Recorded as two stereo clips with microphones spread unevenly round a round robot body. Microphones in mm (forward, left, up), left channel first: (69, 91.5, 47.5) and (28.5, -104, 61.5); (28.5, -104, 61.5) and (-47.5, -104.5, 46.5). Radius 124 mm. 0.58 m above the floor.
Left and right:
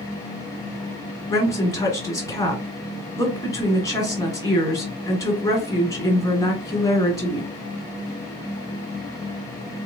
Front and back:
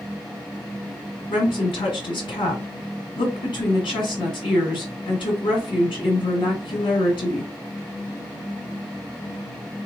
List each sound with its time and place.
1.3 s a woman speaking: 5° left, 1.8 m